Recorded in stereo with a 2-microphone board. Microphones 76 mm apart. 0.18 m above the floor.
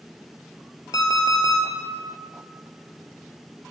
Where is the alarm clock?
55° left (ahead or behind), 1.5 m.